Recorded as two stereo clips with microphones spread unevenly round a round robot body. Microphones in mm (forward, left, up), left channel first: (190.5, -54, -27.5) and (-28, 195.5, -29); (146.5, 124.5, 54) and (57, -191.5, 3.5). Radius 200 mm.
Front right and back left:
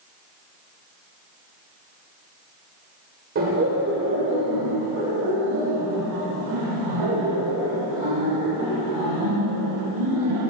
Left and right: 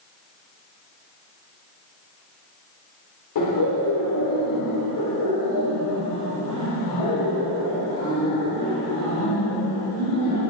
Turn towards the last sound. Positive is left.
turn(degrees=120)